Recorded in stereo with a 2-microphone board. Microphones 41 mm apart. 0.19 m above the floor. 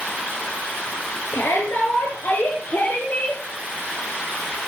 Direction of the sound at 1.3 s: 70° left (ahead or behind).